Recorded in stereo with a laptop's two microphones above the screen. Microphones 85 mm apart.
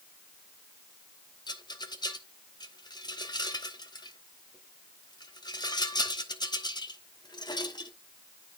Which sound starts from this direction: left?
A rattle, at 1.5 s.